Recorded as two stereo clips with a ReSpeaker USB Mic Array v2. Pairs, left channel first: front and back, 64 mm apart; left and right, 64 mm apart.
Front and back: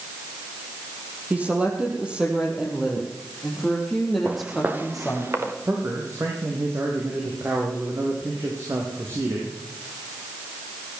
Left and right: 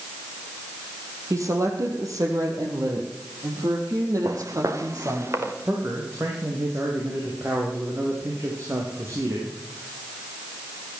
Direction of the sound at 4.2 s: 110° right.